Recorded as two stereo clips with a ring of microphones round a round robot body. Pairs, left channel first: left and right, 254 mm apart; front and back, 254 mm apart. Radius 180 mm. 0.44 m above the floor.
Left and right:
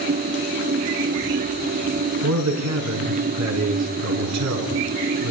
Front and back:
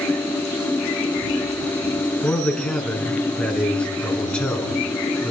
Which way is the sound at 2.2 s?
85° right.